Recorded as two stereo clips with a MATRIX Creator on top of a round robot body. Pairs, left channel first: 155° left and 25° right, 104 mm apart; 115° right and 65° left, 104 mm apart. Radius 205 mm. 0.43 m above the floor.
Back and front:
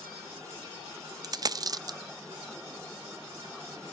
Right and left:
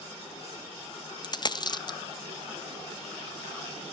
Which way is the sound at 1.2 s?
70° right.